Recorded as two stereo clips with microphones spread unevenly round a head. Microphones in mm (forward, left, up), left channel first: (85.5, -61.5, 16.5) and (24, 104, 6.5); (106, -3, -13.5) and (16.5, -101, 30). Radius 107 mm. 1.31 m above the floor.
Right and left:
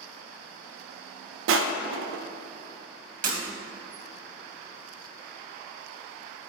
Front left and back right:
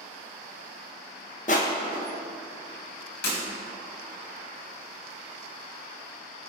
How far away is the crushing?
About 0.9 m.